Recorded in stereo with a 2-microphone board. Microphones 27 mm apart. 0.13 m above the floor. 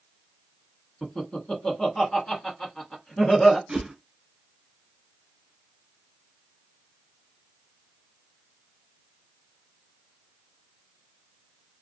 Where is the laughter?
25° left (ahead or behind), 1.3 m.